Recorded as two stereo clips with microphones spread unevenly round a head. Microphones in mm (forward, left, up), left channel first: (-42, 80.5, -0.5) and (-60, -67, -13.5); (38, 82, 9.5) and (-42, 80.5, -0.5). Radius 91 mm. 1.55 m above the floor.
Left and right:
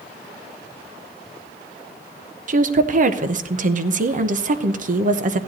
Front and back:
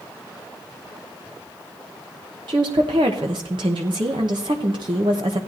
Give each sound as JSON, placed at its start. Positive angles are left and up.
{"t": 2.5, "sound": "a woman speaking", "azimuth_deg": -125, "distance_m": 0.8}